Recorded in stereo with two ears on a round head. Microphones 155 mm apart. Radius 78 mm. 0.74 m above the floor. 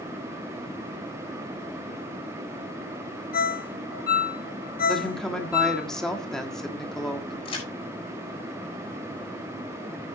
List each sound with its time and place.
3.3 s a ringtone: 55° left (ahead or behind), 1.8 m
4.9 s a woman speaking: 5° left (ahead or behind), 1.4 m
7.5 s a crack: 30° left (ahead or behind), 6.5 m